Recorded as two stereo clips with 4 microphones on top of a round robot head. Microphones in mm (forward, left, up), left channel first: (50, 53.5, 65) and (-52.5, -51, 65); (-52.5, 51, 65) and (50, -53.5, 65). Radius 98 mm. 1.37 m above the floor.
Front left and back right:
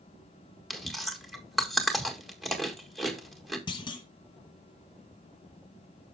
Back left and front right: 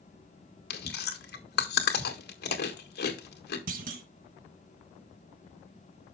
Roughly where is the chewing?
Behind left.